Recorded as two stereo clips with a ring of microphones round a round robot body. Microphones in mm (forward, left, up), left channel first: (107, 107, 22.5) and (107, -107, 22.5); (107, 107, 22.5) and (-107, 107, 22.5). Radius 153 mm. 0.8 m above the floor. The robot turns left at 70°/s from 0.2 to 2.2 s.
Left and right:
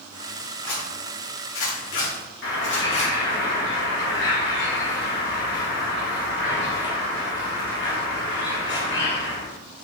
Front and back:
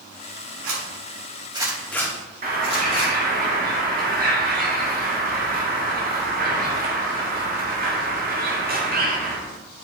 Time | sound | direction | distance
0.6 | a zipper | 175° left | 2 m
2.4 | a bird | 135° left | 1.8 m